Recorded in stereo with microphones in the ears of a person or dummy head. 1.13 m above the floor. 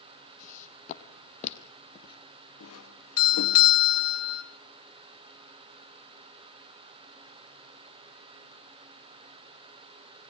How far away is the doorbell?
About 3 m.